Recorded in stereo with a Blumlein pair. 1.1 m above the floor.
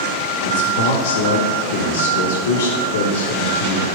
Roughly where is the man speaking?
Ahead left.